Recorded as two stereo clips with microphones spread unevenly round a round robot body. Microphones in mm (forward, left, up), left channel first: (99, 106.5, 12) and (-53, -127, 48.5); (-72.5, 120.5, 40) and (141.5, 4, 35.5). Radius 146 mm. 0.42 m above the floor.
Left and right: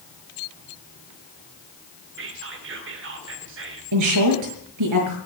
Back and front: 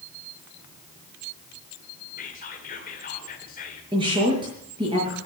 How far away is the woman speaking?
About 6.5 m.